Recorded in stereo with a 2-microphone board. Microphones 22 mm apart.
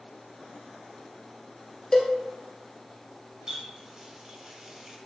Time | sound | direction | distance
1.9 | a cowbell | 30° left (ahead or behind) | 0.8 m
3.5 | a running tap | 25° right (ahead or behind) | 0.9 m